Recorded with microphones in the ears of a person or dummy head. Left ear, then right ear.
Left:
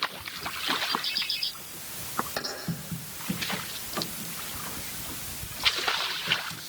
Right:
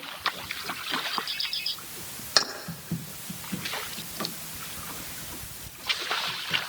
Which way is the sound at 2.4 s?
50° right (ahead or behind).